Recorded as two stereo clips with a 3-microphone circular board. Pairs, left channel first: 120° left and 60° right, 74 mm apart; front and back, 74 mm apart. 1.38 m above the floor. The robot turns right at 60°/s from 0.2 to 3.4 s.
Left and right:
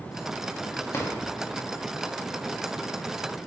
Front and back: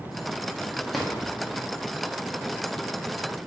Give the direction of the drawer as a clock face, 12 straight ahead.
9 o'clock.